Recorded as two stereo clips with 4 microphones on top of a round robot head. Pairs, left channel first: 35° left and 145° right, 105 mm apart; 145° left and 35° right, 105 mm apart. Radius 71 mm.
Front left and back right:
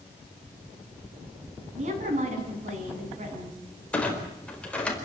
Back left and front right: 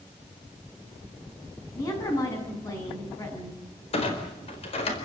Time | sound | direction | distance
1.8 | a woman speaking | 155° right | 8 m
3.9 | a clunk | 115° left | 4.5 m